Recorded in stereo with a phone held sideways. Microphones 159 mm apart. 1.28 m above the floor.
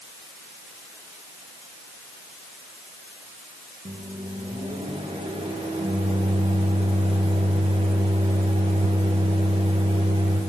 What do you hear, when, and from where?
3.9 s a microwave: 35° right (ahead or behind), 1.2 m